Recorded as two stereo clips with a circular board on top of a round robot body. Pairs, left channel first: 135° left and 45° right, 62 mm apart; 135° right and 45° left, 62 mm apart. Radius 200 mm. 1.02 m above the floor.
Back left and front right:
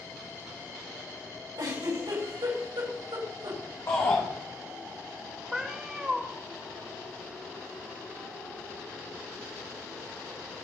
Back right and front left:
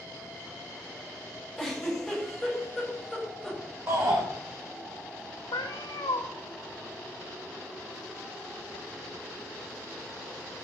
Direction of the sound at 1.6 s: 45° right.